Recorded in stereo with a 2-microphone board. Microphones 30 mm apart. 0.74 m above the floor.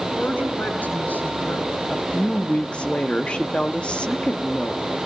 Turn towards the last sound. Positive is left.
turn(degrees=40)  # may be behind; listen again after turning